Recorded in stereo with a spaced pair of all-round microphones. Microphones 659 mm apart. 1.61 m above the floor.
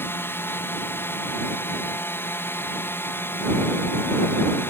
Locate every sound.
0.0 s a drone: 5° left (ahead or behind)